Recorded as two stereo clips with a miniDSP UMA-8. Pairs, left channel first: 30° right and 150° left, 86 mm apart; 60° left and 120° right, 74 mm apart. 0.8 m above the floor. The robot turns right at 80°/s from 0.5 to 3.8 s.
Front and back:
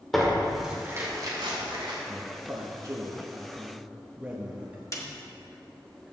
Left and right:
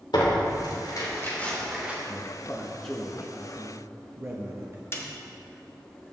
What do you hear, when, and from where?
0.1 s tearing paper: 55° left, 2 m; by 1.9 s 170° left, 2 m
2.0 s a man speaking: 75° left, 1.1 m; by 4.8 s 145° right, 1.1 m
4.9 s a snare drum: 15° left, 1.3 m